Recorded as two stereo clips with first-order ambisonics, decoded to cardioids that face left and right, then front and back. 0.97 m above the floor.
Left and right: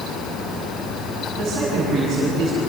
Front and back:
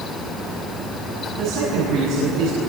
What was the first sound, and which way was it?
A man speaking, 165° right.